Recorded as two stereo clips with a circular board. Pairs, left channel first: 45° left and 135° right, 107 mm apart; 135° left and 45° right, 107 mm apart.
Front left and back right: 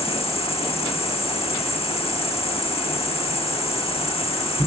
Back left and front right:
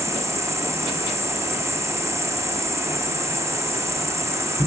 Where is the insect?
20° left, 0.7 m.